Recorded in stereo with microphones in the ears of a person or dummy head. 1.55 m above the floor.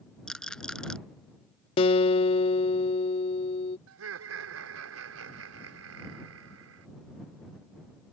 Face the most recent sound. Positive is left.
turn(degrees=-80)